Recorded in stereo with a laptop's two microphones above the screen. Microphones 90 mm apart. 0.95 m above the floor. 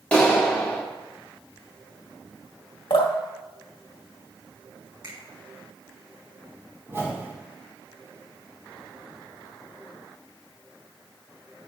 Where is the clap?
10° left (ahead or behind), 1.6 m.